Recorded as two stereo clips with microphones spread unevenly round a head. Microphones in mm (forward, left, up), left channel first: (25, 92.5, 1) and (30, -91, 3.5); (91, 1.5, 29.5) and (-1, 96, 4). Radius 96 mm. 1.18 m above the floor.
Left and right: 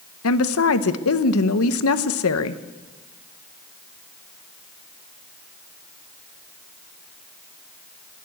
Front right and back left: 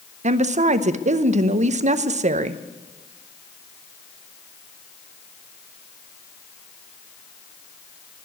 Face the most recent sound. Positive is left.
turn(degrees=105)